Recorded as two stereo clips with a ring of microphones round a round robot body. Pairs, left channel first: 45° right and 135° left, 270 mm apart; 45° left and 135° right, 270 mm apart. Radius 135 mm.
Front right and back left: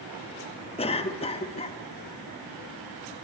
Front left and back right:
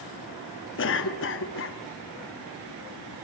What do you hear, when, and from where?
0.8 s a cough: 20° left, 0.9 m